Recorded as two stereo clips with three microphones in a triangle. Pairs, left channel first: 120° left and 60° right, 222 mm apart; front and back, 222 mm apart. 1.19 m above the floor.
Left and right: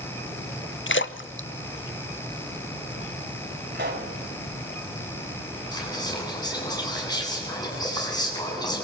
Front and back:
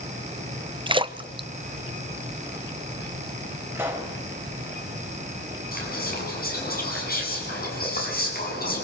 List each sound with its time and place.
0.9 s a splash: 115° left, 0.8 m
3.7 s a pop: 100° right, 4 m
5.7 s whispering: 50° left, 9 m